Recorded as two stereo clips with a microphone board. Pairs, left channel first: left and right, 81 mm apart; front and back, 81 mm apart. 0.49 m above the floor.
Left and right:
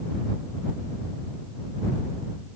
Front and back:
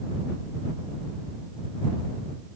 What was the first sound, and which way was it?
Only background noise.